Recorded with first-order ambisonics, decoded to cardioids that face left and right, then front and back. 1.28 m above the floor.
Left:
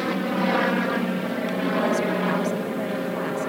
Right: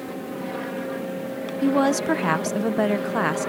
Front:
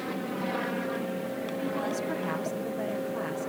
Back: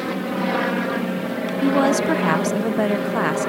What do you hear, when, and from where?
0.0 s an aircraft: 125° left; by 3.5 s straight behind
1.6 s a woman speaking: 145° right